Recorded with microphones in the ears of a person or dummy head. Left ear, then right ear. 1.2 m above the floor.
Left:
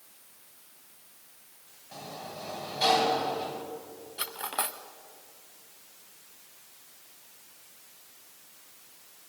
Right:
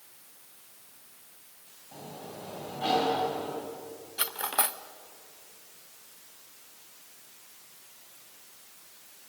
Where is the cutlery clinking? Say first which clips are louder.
Right 3 dB; centre (ahead or behind), 0.5 m.